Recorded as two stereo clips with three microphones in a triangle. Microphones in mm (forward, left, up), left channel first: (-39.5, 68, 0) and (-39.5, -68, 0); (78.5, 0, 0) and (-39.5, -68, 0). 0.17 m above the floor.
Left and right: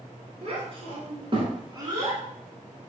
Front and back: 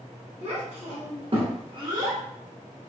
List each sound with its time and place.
0.4 s a child speaking: 125° right, 1.6 m; by 2.2 s 140° right, 0.8 m